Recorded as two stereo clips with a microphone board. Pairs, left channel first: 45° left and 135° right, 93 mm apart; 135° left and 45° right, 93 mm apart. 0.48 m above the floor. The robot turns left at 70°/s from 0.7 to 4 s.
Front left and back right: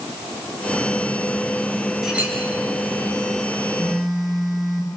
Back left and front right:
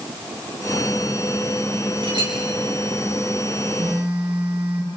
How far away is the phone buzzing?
About 8.5 m.